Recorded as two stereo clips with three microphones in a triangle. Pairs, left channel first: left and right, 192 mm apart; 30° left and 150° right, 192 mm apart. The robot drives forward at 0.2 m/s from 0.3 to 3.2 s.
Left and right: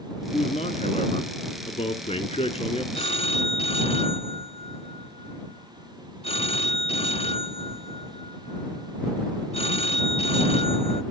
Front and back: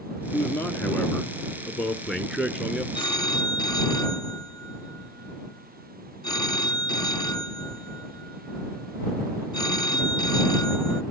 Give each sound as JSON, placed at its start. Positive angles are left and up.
{"t": 0.3, "sound": "a man speaking", "azimuth_deg": 100, "distance_m": 1.4}
{"t": 2.9, "sound": "a phone ringing", "azimuth_deg": 70, "distance_m": 0.8}